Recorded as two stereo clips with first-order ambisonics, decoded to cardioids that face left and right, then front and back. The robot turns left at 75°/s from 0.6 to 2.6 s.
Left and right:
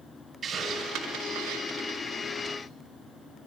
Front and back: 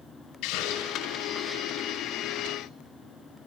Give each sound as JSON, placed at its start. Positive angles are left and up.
{"t": 0.4, "sound": "a hiss", "azimuth_deg": -20, "distance_m": 6.0}